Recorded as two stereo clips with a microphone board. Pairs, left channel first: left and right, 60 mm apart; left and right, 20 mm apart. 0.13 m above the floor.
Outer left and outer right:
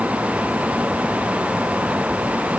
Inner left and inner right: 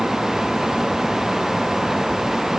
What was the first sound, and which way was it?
Only background noise.